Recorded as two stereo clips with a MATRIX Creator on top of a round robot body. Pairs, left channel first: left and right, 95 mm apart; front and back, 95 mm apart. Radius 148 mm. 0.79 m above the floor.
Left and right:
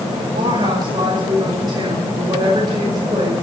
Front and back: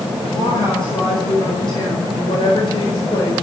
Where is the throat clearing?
No throat clearing in this recording.